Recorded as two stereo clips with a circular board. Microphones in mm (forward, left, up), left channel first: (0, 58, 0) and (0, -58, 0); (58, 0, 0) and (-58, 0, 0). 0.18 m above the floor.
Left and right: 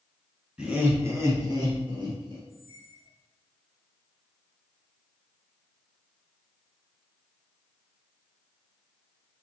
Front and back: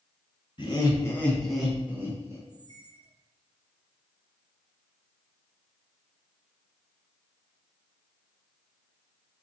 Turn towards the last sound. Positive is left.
turn(degrees=-175)